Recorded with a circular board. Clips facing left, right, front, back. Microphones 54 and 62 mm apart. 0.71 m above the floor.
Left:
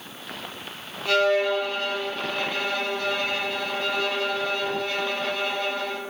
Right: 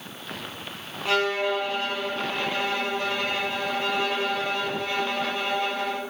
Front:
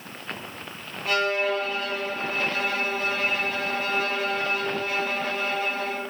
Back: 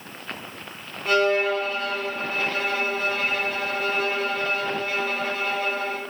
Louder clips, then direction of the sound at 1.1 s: Left 3 dB, back 4 dB; 85° right.